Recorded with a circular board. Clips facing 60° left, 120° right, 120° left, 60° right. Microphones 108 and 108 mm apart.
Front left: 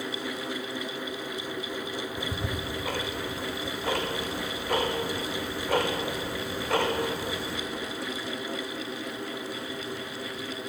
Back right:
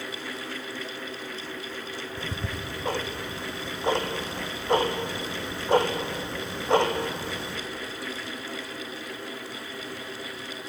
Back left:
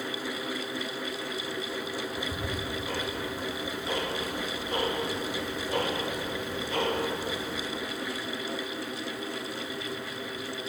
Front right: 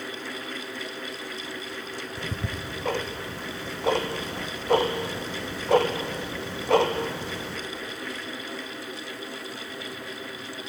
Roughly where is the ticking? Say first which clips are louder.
Front left 2 dB, back left 1 dB; ahead right.